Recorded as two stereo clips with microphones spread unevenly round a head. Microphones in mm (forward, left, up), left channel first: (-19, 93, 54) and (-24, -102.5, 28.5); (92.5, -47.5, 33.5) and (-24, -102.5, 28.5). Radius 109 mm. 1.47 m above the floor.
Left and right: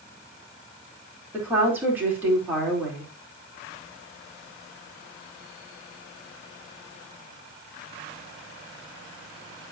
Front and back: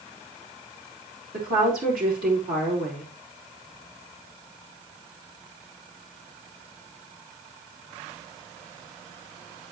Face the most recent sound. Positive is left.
turn(degrees=-170)